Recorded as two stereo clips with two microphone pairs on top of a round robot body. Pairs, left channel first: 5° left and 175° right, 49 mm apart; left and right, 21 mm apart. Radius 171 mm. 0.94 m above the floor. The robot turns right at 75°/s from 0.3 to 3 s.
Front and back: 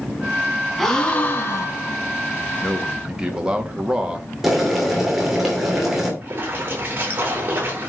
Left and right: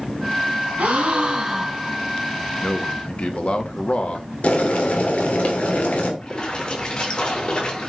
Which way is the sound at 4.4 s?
105° left.